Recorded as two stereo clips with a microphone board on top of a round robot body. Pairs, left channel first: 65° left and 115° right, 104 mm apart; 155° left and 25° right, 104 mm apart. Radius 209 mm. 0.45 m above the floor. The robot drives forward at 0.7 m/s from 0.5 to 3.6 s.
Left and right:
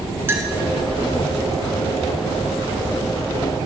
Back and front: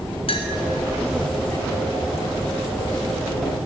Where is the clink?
Straight behind, 1.3 m.